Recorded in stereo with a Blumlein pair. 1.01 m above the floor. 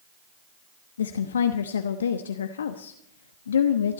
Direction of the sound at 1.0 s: 65° left.